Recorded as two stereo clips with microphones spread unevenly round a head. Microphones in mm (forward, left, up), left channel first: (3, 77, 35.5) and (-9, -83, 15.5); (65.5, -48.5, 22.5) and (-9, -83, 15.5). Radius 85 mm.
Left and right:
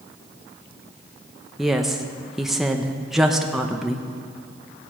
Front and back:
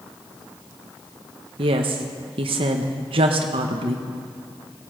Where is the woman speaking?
Straight behind, 0.9 m.